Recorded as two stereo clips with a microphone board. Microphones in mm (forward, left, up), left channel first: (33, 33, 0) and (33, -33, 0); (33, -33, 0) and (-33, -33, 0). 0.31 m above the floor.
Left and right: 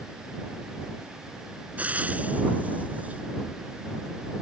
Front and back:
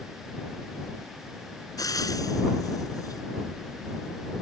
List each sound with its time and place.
1.8 s frying: 20° right